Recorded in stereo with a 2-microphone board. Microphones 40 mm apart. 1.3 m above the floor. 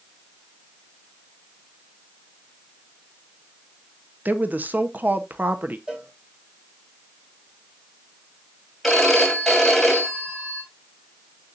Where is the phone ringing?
Centre (ahead or behind), 3 m.